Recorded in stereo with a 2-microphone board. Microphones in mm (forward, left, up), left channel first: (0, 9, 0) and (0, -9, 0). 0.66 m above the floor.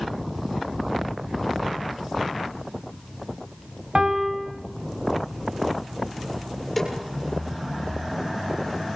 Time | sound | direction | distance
4.0 | a piano | 50° right (ahead or behind) | 3 m
6.8 | a snare drum | 5° left (ahead or behind) | 7 m